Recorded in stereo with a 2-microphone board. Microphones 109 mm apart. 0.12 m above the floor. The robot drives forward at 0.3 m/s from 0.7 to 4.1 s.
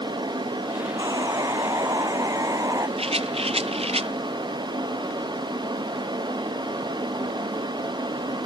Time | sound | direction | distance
1.0 | sawing | 35° right (ahead or behind) | ?
3.0 | a rattle | 65° right (ahead or behind) | ?